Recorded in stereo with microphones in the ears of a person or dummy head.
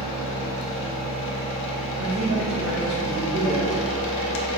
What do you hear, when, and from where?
0.0 s a machine running: 60° left (ahead or behind), 0.7 m
2.0 s a man speaking: 50° right (ahead or behind), 1.8 m